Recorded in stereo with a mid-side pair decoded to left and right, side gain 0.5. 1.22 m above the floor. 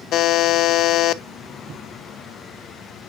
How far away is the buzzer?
About 0.6 m.